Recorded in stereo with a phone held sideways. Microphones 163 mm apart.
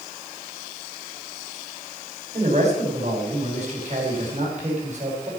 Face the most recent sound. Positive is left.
turn(degrees=-45)  # may be behind; listen again after turning